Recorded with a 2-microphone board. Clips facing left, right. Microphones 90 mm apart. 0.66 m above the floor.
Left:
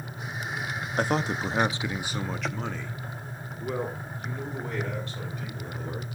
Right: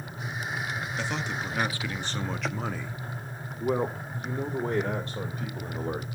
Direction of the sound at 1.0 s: 50° left (ahead or behind).